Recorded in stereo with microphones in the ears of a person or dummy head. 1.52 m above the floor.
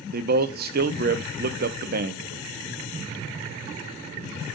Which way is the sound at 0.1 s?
45° right (ahead or behind).